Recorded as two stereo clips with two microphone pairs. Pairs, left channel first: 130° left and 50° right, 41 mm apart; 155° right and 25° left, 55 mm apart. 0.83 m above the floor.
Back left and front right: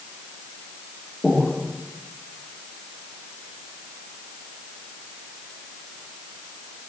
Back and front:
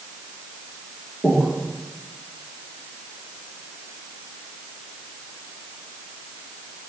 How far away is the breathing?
About 2.5 m.